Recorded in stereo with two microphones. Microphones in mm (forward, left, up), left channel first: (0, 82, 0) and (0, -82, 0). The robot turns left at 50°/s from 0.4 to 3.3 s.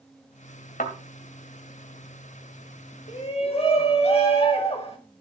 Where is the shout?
50° left (ahead or behind), 2.5 m; by 5.0 s 35° left (ahead or behind), 2.5 m.